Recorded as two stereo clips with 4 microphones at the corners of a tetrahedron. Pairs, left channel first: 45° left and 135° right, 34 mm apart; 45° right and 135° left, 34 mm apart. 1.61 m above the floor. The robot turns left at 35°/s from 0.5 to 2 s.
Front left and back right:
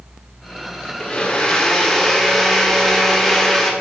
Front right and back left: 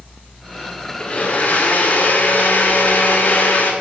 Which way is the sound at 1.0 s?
5° right.